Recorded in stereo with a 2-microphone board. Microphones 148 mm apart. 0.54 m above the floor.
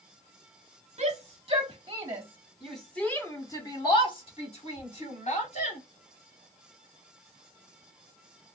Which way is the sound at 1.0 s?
40° right (ahead or behind).